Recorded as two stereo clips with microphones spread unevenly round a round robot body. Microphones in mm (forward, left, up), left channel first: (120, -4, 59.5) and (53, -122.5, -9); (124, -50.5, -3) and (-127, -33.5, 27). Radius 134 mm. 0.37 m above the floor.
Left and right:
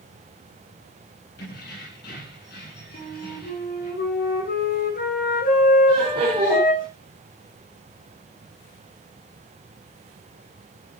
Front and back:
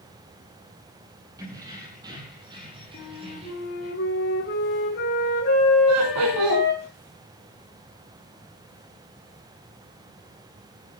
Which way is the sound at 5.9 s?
170° right.